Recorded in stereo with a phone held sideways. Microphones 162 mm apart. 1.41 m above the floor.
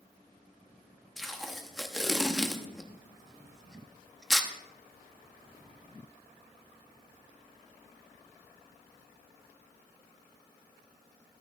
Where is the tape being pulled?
Centre (ahead or behind), 0.8 m.